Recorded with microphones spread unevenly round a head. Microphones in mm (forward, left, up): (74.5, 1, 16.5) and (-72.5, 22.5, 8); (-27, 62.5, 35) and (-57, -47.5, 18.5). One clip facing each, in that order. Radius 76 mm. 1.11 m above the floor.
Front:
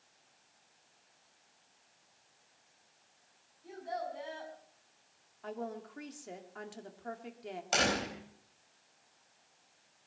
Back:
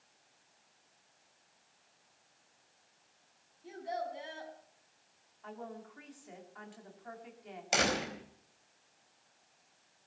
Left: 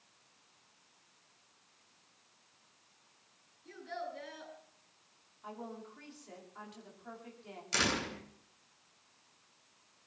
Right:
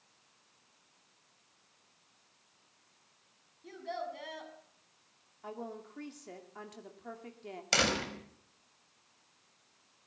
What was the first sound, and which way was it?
A child speaking, 120° right.